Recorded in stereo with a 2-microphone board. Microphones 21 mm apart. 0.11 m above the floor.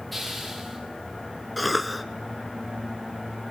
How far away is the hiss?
About 4.5 m.